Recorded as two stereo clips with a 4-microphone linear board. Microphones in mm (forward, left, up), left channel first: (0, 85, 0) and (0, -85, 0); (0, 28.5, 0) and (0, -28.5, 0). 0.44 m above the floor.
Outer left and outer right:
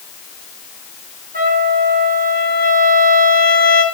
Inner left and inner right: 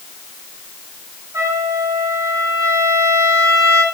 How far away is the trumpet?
About 2.5 m.